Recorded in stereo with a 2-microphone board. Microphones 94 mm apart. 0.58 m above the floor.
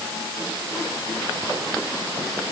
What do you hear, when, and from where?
Only background noise.